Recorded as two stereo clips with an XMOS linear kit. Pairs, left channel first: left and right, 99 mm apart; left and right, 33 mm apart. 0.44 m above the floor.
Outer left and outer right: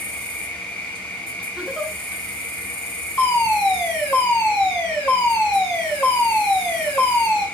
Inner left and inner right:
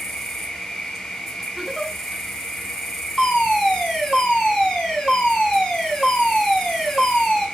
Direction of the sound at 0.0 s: 10° left (ahead or behind).